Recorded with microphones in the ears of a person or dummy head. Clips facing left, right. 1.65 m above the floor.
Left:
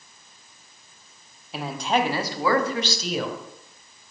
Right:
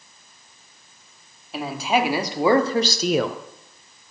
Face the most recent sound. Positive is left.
turn(degrees=-70)  # may be behind; listen again after turning